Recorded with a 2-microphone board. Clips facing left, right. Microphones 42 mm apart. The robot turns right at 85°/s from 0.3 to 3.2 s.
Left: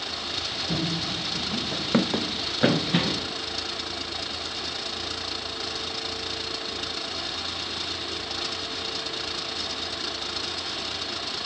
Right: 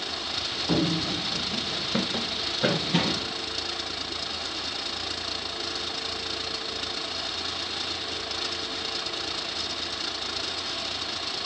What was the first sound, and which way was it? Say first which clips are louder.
Running footsteps: right 5 dB; 65° right (ahead or behind).